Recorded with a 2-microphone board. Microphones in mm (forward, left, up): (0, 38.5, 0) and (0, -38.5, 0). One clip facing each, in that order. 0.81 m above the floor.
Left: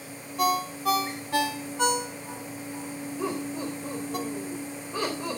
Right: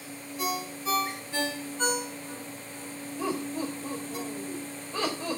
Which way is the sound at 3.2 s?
10° left (ahead or behind).